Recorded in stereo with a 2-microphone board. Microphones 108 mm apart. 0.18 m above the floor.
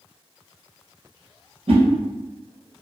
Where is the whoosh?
65° right (ahead or behind), 1.2 m.